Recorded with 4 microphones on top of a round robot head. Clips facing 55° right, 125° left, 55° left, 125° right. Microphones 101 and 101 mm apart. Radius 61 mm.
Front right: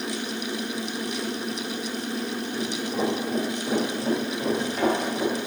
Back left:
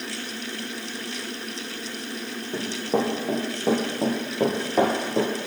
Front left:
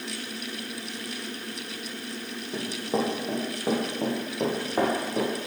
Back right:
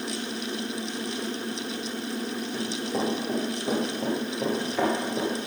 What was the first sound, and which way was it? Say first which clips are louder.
Running footsteps: back left 6 dB, front left 4 dB; 105° left.